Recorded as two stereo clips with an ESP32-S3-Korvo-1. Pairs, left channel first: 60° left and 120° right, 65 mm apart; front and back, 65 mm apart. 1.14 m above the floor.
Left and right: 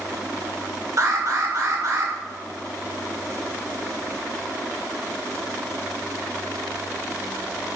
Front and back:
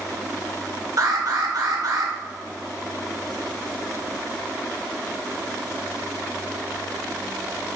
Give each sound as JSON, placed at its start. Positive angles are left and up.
{"t": 1.0, "sound": "an alarm", "azimuth_deg": -155, "distance_m": 3.5}